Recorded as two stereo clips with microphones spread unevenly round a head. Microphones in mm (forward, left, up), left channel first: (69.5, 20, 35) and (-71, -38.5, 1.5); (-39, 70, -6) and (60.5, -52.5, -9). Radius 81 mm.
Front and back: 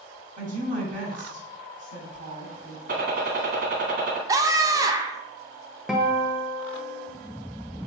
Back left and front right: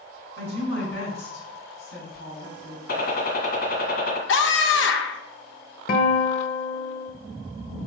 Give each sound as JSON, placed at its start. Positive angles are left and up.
{"t": 0.4, "sound": "a woman speaking", "azimuth_deg": 160, "distance_m": 5.0}
{"t": 2.9, "sound": "a gunshot", "azimuth_deg": 160, "distance_m": 1.8}
{"t": 4.3, "sound": "a scream", "azimuth_deg": 140, "distance_m": 1.0}
{"t": 5.9, "sound": "a guitar", "azimuth_deg": 110, "distance_m": 1.3}